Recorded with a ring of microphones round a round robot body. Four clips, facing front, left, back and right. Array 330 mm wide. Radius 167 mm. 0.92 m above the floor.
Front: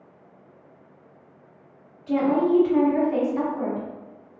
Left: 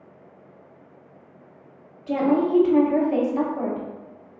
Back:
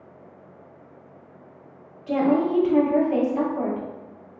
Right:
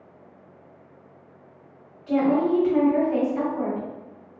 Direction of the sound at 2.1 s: 135° left.